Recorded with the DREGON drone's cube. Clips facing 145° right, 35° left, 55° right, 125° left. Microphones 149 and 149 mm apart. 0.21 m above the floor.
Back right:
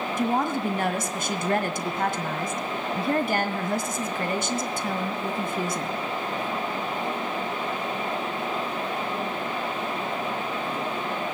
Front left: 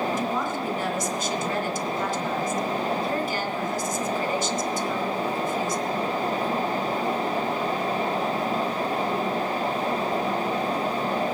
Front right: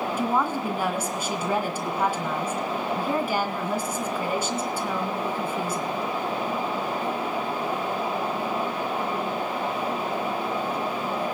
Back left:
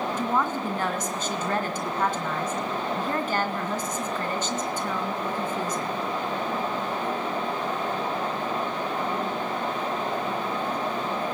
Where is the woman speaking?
135° right, 2.5 m.